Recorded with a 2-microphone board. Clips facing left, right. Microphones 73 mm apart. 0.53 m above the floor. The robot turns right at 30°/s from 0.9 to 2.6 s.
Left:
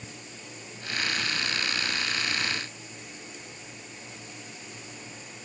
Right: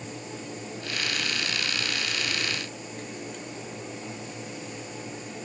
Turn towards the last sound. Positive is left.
No sound to turn to.